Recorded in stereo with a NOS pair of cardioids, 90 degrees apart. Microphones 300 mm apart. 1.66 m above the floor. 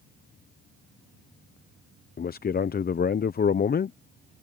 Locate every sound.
2.2 s a man speaking: 30° left